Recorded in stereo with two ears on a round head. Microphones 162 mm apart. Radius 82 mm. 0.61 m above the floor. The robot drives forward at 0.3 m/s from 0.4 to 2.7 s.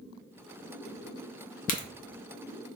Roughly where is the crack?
Left.